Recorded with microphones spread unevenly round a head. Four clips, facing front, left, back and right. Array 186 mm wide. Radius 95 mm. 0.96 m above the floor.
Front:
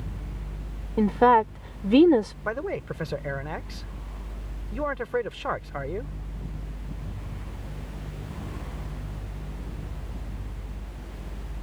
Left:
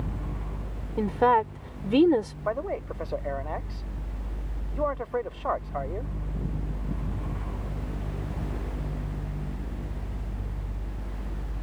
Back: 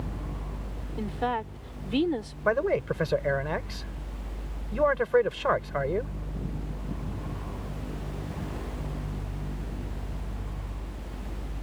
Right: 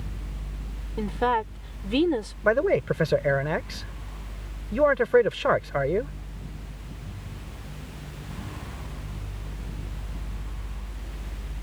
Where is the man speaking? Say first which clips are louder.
Right 8 dB, back 5 dB; 105° right.